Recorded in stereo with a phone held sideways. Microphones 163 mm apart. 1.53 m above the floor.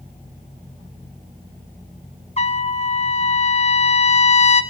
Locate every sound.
2.4 s a trumpet: 40° left (ahead or behind), 1.2 m